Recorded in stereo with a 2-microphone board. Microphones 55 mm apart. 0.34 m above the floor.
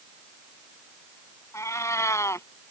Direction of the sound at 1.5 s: 70° left (ahead or behind).